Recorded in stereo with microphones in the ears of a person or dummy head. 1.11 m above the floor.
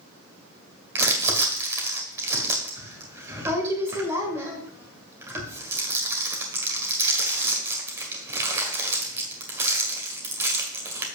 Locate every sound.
0.9 s crumpling: 15° right (ahead or behind), 2 m